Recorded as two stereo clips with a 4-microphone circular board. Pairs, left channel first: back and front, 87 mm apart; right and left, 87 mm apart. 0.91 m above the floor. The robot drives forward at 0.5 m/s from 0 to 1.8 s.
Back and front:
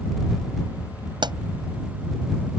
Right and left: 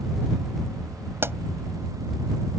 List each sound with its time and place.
1.2 s a pop: 25° left